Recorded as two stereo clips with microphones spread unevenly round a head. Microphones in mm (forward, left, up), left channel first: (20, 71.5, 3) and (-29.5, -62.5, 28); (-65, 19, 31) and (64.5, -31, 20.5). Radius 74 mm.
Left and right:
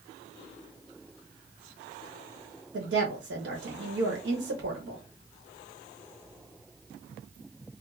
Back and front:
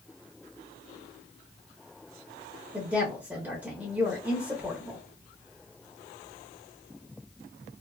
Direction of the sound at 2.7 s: 95° right.